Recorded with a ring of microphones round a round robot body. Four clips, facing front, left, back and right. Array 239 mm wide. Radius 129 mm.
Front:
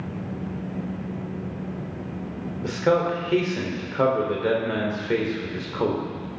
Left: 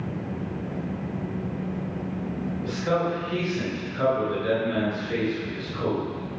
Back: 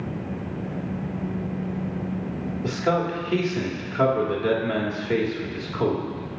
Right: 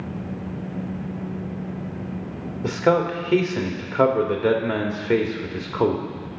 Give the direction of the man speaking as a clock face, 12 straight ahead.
3 o'clock.